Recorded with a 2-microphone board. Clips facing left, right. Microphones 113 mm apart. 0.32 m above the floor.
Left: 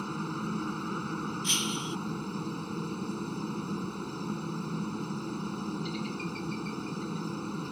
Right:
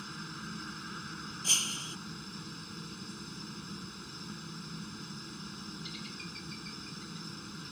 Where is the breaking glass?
35° right (ahead or behind).